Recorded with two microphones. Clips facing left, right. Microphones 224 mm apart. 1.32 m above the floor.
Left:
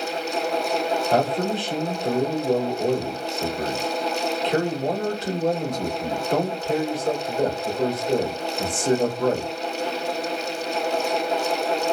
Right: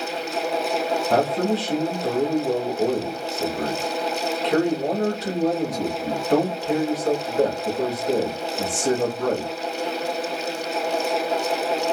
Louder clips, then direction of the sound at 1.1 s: Right 3 dB; 75° right (ahead or behind).